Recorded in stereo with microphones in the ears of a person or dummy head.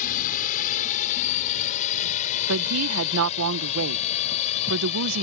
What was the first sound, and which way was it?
A drone, 45° left (ahead or behind).